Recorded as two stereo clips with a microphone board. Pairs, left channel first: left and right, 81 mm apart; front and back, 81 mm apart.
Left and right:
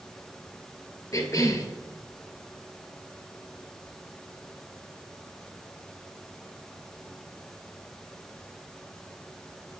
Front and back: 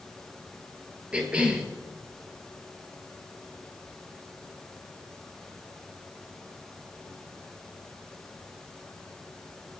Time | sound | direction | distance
1.1 | a cough | 110° left | 1.6 m